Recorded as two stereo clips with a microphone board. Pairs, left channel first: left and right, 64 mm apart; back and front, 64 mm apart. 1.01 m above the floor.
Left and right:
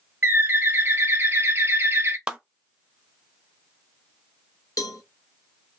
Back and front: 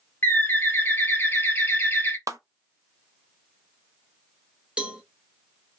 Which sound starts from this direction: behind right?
A bird, at 0.2 s.